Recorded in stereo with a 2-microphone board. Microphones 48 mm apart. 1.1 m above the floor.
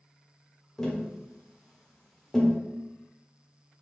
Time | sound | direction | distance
0.8 | tapping | 5° left (ahead or behind) | 0.8 m